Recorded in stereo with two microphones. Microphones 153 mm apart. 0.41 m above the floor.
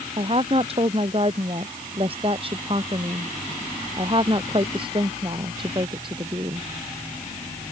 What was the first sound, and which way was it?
A woman speaking, 40° right (ahead or behind).